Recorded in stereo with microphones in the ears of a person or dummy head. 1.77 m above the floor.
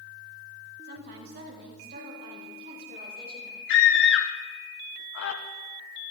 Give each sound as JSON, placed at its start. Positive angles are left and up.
{"t": 0.8, "sound": "a woman speaking", "side_deg": -60, "distance_m": 2.5}
{"t": 3.7, "sound": "a scream", "side_deg": 65, "distance_m": 0.9}